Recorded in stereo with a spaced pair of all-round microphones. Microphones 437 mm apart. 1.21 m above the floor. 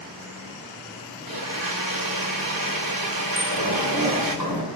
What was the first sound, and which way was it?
A blender, 50° right (ahead or behind).